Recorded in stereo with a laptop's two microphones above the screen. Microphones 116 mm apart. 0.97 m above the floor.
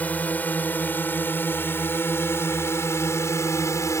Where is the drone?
15° left (ahead or behind); by 4.0 s 25° left (ahead or behind).